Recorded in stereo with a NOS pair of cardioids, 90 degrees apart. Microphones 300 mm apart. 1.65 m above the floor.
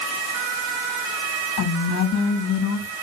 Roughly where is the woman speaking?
Ahead left.